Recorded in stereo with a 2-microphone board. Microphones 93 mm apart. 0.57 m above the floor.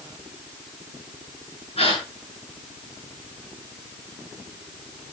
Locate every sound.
1.8 s a gasp: 85° left, 7.5 m